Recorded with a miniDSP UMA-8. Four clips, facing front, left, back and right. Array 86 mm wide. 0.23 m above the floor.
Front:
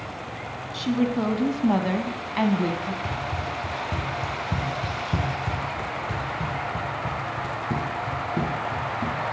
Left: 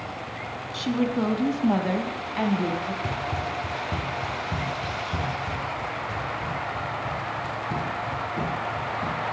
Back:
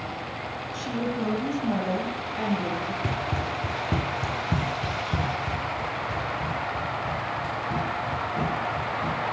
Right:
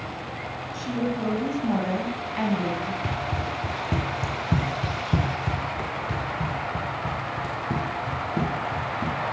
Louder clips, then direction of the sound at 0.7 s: Left 3 dB, front 6 dB; 50° left.